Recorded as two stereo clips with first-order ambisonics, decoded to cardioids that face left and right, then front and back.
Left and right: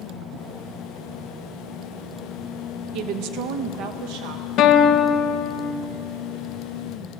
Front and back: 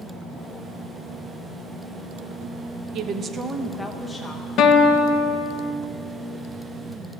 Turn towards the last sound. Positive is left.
turn(degrees=45)